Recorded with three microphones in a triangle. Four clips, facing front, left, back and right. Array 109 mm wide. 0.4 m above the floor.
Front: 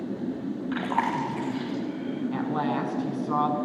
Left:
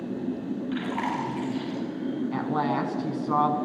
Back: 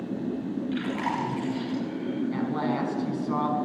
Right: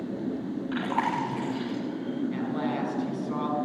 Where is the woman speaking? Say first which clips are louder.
Left 3 dB, front 3 dB; 75° left, 4 m.